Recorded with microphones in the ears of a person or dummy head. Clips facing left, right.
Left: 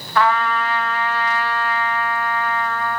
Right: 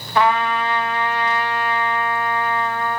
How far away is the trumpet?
About 1.4 m.